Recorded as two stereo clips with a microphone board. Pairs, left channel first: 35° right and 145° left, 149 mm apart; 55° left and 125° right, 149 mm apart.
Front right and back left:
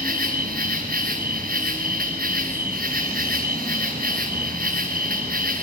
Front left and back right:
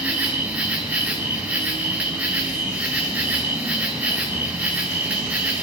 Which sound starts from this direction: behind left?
An insect, at 0.0 s.